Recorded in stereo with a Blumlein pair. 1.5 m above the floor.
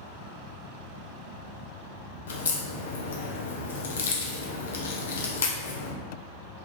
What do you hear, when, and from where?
2.3 s a crack: 60° left, 0.7 m